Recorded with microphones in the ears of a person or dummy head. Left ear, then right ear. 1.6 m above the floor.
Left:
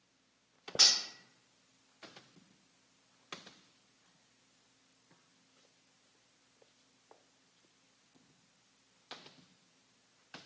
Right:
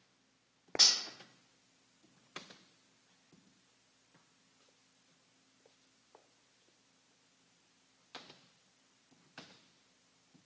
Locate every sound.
0.8 s cutlery clinking: 40° left (ahead or behind), 1.6 m